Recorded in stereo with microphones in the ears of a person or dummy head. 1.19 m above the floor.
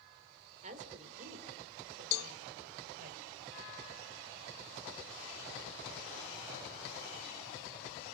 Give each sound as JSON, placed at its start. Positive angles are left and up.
{"t": 0.6, "sound": "a woman speaking", "side_deg": -45, "distance_m": 3.5}
{"t": 2.1, "sound": "a cowbell", "side_deg": 55, "distance_m": 1.3}